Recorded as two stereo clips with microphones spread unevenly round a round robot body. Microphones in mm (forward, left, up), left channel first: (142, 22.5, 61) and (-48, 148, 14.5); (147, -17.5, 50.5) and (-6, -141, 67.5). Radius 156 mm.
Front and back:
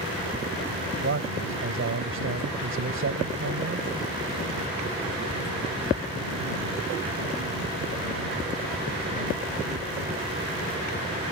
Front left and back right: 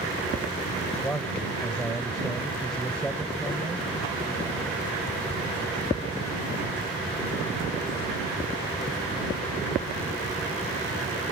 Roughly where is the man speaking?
Behind left.